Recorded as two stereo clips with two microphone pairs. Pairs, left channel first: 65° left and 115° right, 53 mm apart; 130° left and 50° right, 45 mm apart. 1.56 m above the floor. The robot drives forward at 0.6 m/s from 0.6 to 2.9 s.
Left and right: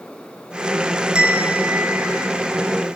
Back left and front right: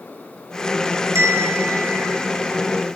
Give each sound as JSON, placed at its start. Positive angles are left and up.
{"t": 1.1, "sound": "a bell", "azimuth_deg": -45, "distance_m": 0.8}